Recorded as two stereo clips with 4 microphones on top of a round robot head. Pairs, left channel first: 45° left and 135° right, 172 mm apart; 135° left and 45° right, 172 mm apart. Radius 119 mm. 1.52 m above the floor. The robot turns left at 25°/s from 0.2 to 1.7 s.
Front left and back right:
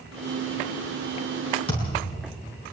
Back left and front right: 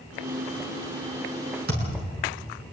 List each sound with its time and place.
1.7 s a thud: 15° right, 7 m